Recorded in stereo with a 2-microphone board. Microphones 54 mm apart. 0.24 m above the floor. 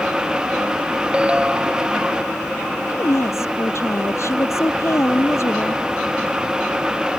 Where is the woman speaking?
60° left (ahead or behind).